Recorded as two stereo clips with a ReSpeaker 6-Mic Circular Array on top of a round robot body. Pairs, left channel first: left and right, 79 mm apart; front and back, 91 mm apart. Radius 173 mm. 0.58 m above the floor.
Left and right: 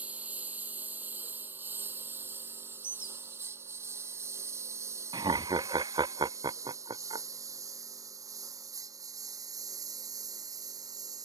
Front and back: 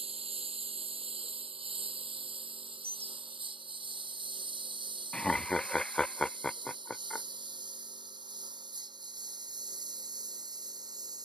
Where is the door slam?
I don't hear a door slam.